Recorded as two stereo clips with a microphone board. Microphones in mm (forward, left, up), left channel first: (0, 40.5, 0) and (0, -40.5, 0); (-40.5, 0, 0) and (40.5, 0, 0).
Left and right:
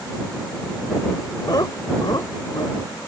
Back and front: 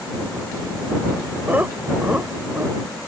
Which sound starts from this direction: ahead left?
Laughter, at 1.5 s.